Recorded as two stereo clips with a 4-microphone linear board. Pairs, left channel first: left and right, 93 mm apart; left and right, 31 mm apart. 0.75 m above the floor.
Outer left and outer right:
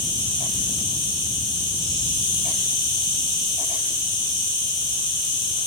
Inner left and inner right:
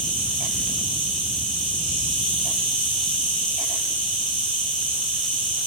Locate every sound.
0.0 s an insect: 45° left (ahead or behind), 1.1 m